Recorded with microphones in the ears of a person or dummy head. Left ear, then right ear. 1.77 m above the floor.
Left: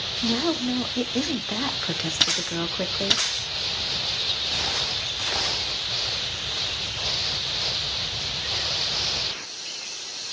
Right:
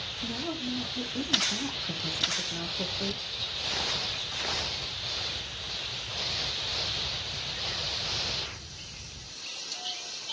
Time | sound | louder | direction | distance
0.2 | a woman speaking | left 11 dB | 70° left (ahead or behind) | 1.1 m